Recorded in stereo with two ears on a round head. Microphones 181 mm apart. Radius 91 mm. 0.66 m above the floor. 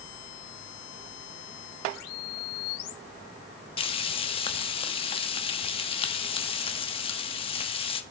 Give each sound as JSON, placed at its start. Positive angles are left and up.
{"t": 3.8, "sound": "frying", "side_deg": 30, "distance_m": 1.1}